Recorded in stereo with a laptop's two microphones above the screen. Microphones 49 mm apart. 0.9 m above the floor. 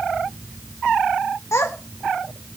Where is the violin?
I don't hear a violin.